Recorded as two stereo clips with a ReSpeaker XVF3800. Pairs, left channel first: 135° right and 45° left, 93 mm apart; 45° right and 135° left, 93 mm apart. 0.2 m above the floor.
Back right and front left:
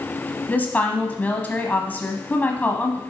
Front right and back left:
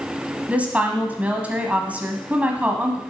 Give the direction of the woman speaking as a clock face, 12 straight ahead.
6 o'clock.